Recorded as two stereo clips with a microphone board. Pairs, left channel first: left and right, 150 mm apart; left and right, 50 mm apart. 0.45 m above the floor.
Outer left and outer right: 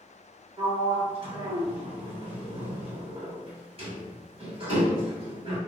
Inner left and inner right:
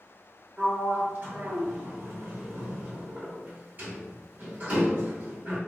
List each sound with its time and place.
0.6 s a sliding door: 40° right (ahead or behind), 1.8 m